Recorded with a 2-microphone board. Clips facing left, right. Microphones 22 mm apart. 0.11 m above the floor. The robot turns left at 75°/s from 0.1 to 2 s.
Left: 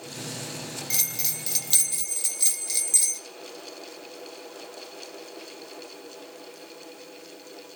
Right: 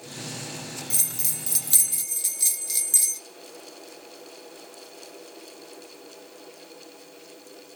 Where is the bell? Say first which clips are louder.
Left 1 dB; 95° left, 0.9 m; by 3.2 s 10° left, 0.9 m.